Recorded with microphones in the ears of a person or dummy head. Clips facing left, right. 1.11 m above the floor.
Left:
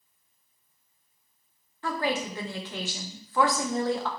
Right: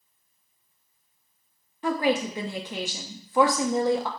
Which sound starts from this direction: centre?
A woman speaking, at 1.8 s.